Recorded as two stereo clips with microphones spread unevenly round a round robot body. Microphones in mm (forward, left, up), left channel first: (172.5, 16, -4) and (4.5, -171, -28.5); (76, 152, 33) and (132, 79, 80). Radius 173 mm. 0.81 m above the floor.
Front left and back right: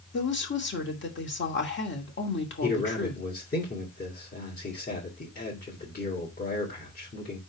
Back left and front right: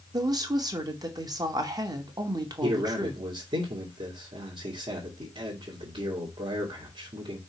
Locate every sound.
0.1 s a woman speaking: 5° left, 2.5 m
2.6 s a man speaking: 10° right, 2.5 m